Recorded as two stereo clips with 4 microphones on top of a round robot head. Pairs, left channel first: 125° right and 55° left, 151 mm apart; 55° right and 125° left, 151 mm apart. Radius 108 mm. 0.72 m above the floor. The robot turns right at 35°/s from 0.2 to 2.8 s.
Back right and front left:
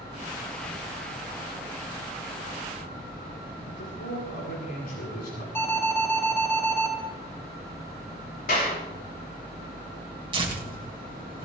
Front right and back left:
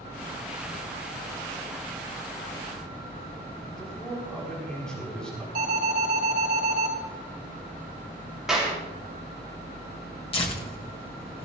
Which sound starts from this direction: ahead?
Tearing paper, at 10.3 s.